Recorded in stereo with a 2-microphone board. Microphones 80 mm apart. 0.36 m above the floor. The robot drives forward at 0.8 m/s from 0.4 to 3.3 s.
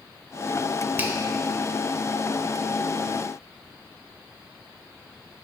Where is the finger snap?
25° right (ahead or behind), 0.8 m.